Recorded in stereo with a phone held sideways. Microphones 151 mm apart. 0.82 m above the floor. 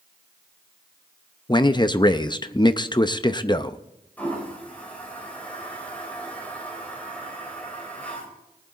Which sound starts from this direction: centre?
A toilet flushing, at 4.2 s.